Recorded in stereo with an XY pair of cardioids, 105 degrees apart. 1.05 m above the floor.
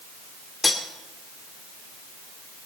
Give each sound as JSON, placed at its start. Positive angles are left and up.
{"t": 0.6, "sound": "cutlery clinking", "azimuth_deg": 25, "distance_m": 2.0}